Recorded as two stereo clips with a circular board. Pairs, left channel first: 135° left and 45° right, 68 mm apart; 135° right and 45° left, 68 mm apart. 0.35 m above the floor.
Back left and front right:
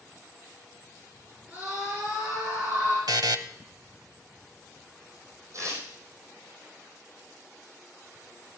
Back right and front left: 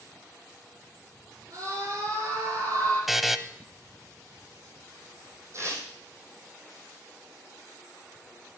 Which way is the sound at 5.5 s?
5° right.